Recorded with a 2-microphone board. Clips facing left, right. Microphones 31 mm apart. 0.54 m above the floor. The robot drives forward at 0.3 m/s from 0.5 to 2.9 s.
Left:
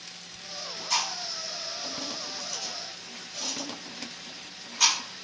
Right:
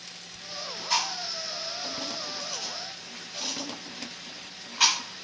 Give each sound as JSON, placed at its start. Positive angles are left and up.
{"t": 0.9, "sound": "chewing", "side_deg": -25, "distance_m": 1.6}